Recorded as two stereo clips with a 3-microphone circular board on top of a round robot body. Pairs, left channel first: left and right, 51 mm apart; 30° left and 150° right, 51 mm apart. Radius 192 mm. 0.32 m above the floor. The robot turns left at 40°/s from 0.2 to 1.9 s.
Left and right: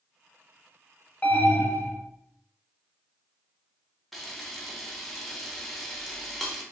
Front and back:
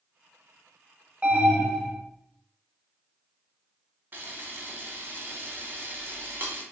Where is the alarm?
145° left, 1.1 m; by 2.0 s 120° left, 1.1 m.